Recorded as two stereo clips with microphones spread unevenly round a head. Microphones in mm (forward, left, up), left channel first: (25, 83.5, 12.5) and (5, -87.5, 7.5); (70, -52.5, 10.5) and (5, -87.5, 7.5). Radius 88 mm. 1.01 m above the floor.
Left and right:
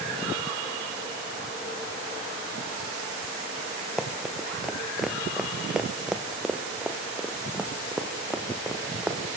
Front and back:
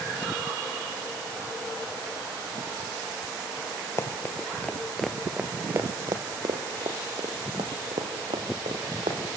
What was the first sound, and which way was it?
Running footsteps, straight ahead.